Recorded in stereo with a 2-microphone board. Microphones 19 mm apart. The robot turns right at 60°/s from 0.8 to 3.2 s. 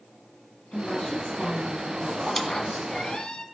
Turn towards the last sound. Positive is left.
turn(degrees=70)